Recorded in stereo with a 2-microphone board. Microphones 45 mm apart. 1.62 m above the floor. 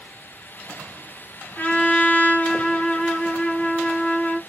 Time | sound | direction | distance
1.6 | a trumpet | 30° left (ahead or behind) | 0.9 m